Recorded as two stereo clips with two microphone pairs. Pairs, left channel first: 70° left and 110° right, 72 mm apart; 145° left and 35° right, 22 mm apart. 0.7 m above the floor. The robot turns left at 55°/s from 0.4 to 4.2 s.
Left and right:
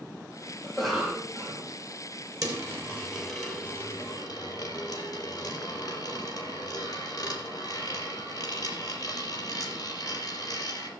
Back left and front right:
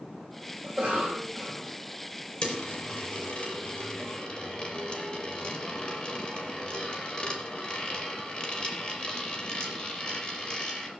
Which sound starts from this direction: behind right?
A dropped coin, at 2.4 s.